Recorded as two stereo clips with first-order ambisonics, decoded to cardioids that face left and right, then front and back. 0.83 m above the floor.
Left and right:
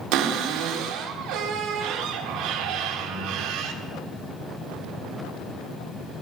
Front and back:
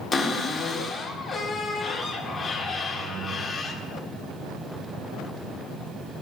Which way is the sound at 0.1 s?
75° right.